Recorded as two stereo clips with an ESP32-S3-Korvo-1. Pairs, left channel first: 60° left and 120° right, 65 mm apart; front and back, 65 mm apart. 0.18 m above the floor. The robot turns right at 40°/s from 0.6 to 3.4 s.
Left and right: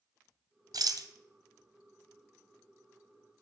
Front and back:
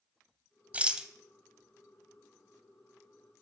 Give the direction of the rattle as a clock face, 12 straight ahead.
4 o'clock.